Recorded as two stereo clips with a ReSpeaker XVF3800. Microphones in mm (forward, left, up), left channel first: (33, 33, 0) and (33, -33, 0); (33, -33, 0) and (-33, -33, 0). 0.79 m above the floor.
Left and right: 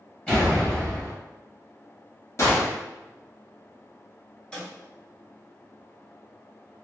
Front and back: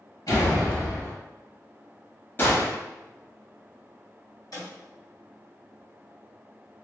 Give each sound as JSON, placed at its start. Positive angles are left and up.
{"t": 0.3, "sound": "a door slam", "azimuth_deg": 20, "distance_m": 1.6}
{"t": 2.4, "sound": "a gunshot", "azimuth_deg": 55, "distance_m": 1.0}
{"t": 4.5, "sound": "a snare drum", "azimuth_deg": 20, "distance_m": 1.7}